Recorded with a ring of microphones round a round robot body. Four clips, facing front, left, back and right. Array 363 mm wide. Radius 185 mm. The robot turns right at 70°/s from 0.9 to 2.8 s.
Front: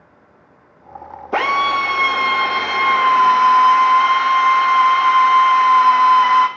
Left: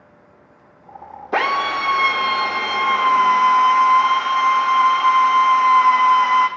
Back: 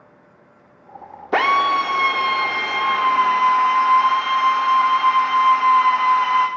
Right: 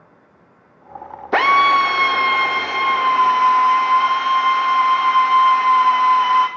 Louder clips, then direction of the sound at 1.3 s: Right 6 dB, even; 115° right.